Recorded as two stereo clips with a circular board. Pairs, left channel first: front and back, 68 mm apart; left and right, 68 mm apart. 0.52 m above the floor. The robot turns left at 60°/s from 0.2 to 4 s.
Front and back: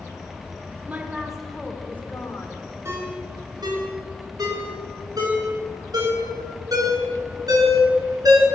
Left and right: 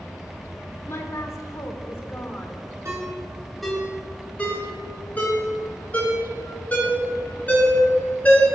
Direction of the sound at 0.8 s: 125° left.